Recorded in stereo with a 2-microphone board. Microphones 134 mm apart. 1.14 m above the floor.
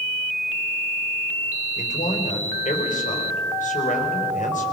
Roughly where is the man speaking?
Left.